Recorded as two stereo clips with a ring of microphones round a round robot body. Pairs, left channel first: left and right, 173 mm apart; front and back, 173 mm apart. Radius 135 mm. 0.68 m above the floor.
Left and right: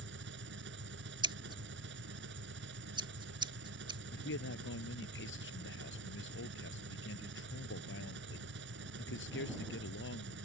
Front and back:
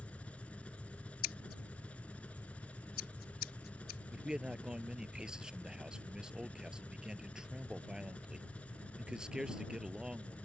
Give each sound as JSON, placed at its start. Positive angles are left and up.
{"t": 0.0, "sound": "an engine running", "azimuth_deg": -85}
{"t": 1.2, "sound": "scissors", "azimuth_deg": -25}
{"t": 4.1, "sound": "a man speaking", "azimuth_deg": 95}